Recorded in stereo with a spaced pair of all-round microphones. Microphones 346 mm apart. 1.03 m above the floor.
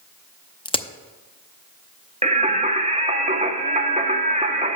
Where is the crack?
15° left (ahead or behind), 0.5 m.